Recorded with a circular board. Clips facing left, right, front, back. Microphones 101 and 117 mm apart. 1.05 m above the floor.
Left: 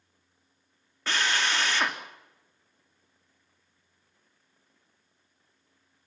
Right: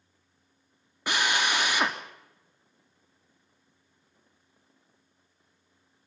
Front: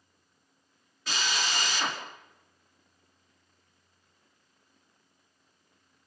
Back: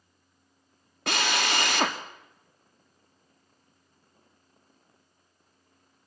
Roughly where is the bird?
I don't hear a bird.